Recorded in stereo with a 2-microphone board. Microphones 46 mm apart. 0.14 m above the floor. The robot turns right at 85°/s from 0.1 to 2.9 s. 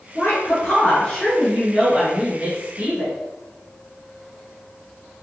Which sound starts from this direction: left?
A woman speaking, at 0.1 s.